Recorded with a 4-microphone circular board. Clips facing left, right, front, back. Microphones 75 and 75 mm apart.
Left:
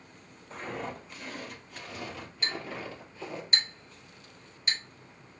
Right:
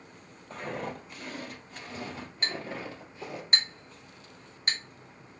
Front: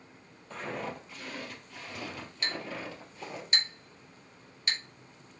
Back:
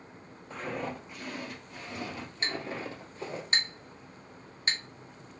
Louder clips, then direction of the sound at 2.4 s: Right 1 dB, back 2 dB; 125° right.